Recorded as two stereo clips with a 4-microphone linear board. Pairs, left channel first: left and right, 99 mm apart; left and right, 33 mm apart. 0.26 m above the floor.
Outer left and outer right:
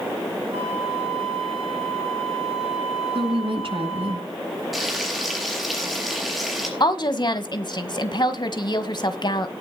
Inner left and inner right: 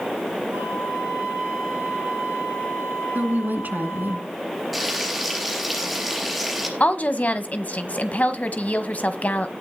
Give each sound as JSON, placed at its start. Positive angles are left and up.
{"t": 0.5, "sound": "a flute", "side_deg": -80, "distance_m": 7.5}
{"t": 3.1, "sound": "a woman speaking", "side_deg": -65, "distance_m": 2.5}
{"t": 4.7, "sound": "frying", "side_deg": 0, "distance_m": 4.0}
{"t": 6.8, "sound": "a woman speaking", "side_deg": 50, "distance_m": 1.5}